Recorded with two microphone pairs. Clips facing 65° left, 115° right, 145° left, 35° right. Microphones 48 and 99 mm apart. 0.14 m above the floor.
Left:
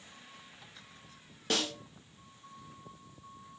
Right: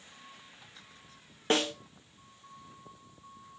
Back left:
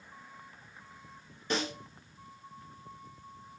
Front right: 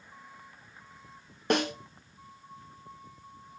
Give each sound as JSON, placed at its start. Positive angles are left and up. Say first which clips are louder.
{"t": 1.5, "sound": "a snare drum", "louder": "right 5 dB, front right 6 dB", "azimuth_deg": -60, "distance_m": 1.3}